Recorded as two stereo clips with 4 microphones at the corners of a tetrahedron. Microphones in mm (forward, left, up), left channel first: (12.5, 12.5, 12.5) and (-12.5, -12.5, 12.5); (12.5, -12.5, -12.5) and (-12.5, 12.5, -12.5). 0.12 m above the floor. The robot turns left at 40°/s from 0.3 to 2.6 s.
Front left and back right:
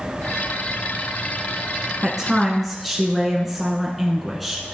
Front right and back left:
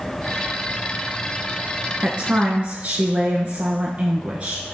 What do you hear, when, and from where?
2.0 s a woman speaking: 155° left, 1.4 m; by 4.7 s 130° left, 1.4 m